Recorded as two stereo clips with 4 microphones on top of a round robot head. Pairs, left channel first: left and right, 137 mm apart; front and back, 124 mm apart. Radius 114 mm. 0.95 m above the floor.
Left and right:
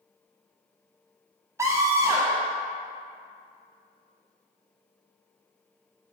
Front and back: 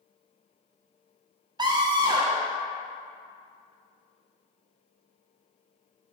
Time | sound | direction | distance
1.6 | a scream | 150° right | 0.7 m